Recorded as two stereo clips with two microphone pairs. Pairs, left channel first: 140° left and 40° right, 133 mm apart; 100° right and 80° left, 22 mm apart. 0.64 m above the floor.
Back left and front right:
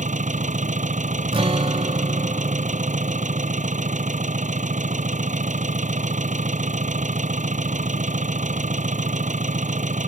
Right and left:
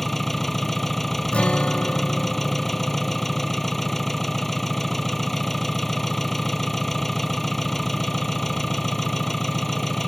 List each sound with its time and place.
0.0 s an engine running: 20° right
1.3 s a guitar: 85° right